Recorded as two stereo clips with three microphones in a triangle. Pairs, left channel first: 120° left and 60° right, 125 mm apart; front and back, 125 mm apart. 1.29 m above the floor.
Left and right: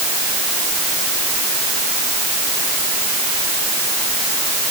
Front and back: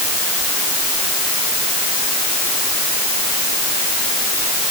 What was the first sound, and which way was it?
Only background noise.